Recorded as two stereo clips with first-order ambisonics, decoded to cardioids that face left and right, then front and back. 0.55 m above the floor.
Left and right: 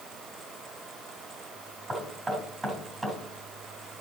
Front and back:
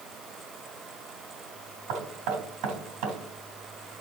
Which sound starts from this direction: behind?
Knocking, at 1.9 s.